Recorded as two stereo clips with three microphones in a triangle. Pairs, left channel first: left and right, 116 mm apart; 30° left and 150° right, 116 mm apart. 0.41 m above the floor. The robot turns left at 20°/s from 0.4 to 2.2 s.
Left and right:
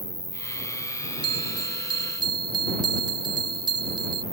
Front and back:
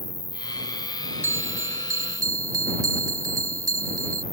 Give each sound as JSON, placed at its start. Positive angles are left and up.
{"t": 0.0, "sound": "an insect", "azimuth_deg": 130}
{"t": 1.2, "sound": "a bell", "azimuth_deg": -90}